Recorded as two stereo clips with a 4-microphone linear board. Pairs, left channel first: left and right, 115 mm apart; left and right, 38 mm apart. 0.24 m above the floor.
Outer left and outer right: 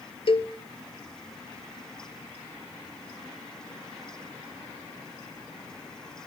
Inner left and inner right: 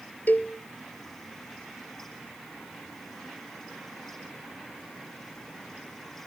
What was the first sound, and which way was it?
A cowbell, 55° left (ahead or behind).